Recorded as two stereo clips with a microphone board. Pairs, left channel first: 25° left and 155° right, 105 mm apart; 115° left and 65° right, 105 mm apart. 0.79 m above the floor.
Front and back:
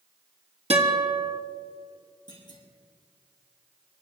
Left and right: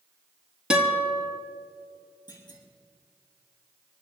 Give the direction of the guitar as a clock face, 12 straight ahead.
5 o'clock.